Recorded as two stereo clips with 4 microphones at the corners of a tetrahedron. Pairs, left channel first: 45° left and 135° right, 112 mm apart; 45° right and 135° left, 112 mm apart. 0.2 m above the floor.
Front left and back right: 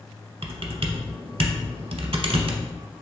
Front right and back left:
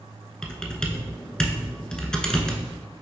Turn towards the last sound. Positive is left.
turn(degrees=-125)